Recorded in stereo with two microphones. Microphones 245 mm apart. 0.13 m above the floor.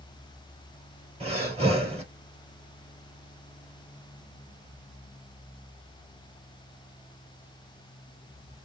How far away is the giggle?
No giggle in this recording.